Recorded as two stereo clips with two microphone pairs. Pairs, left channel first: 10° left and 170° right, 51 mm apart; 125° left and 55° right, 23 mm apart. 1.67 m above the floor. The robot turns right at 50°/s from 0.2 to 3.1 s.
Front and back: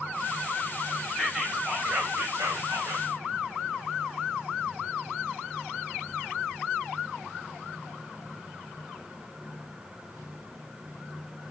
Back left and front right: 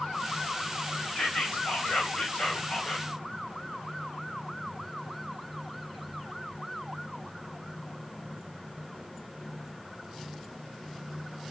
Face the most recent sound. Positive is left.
turn(degrees=-170)